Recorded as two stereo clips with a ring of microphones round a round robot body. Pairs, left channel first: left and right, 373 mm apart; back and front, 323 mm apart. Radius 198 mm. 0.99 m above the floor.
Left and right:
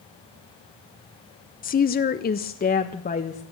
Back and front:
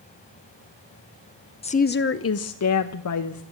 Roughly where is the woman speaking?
Behind left.